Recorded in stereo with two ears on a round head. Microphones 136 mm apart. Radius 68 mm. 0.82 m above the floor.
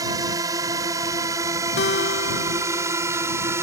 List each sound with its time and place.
0.0 s a drone: 25° right (ahead or behind); by 3.6 s 15° right (ahead or behind)
1.8 s a guitar: 80° left